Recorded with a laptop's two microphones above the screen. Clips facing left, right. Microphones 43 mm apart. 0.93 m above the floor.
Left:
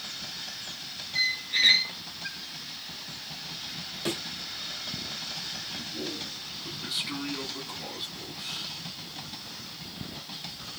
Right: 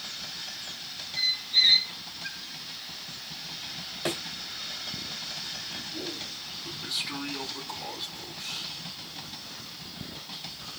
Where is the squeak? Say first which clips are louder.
Even; 75° left (ahead or behind), 0.6 m.